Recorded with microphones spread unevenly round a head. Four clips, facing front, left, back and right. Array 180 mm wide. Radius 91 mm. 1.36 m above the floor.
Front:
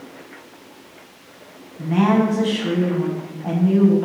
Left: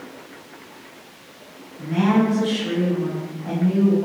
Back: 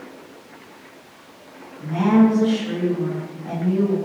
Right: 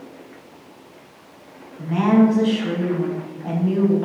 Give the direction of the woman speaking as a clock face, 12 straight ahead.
12 o'clock.